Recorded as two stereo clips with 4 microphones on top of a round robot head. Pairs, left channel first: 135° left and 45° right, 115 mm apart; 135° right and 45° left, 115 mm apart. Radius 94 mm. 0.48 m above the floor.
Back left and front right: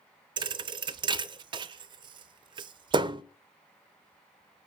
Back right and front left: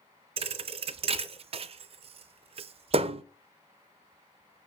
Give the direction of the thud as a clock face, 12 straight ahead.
12 o'clock.